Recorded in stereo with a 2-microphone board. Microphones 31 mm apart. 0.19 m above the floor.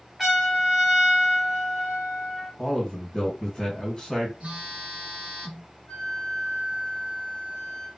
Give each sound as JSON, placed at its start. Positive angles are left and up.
{"t": 0.2, "sound": "a trumpet", "side_deg": -5, "distance_m": 1.4}
{"t": 2.6, "sound": "a man speaking", "side_deg": 25, "distance_m": 1.2}
{"t": 4.4, "sound": "a phone buzzing", "side_deg": -45, "distance_m": 1.2}
{"t": 5.9, "sound": "a flute", "side_deg": 45, "distance_m": 1.1}